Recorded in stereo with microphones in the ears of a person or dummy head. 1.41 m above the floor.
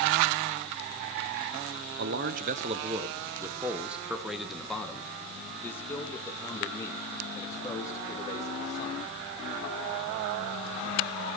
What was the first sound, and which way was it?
A man speaking, 60° right (ahead or behind).